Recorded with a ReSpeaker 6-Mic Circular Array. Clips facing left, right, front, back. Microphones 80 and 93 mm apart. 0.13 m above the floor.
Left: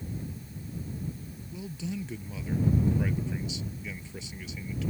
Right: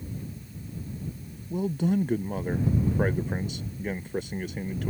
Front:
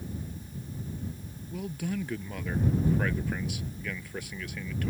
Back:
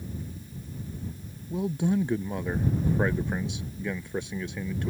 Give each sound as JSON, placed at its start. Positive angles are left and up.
{"t": 1.5, "sound": "a man speaking", "azimuth_deg": -120}